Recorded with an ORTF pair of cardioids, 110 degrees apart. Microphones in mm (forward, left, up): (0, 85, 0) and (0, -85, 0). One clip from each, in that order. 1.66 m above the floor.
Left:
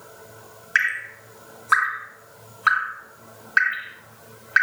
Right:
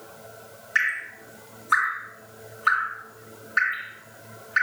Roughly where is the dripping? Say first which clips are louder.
Left 2 dB; ahead left.